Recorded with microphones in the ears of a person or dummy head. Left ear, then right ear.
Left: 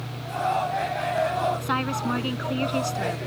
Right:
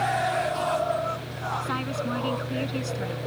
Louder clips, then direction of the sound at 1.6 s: Left 3 dB; 15° left (ahead or behind).